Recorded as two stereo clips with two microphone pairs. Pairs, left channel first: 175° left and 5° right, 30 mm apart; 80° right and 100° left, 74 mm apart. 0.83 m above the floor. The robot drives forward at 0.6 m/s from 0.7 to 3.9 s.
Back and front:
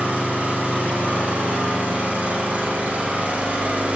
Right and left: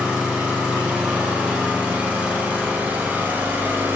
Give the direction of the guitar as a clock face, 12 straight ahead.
I don't hear a guitar.